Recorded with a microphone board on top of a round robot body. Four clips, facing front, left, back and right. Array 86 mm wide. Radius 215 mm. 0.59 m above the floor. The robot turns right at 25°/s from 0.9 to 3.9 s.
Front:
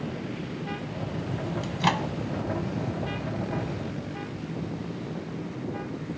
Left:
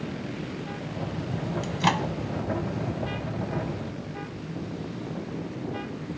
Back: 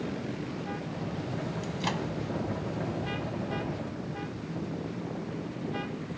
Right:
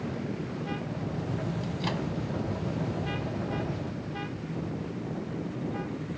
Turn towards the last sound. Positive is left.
turn(degrees=105)